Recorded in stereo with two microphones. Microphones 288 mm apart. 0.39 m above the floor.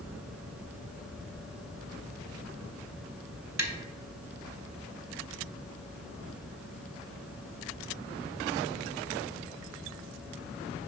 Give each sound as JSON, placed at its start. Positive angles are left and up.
{"t": 3.6, "sound": "tapping", "side_deg": -60, "distance_m": 0.8}